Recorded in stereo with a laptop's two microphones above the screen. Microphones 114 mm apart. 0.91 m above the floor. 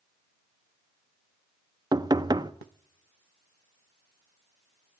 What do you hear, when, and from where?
1.9 s knocking: 35° right (ahead or behind), 0.6 m